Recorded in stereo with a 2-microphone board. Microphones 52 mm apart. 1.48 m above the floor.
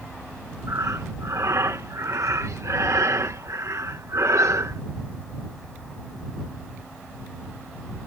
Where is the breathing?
75° right (ahead or behind).